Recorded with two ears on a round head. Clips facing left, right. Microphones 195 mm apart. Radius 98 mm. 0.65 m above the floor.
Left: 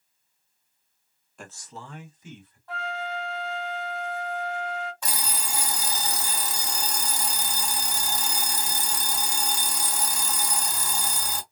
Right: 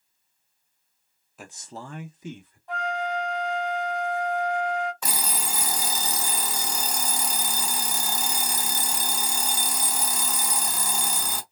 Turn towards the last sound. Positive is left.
turn(degrees=-65)  # may be behind; listen again after turning